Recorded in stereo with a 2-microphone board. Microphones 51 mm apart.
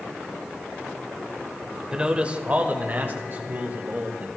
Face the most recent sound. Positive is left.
turn(degrees=-40)  # may be behind; listen again after turning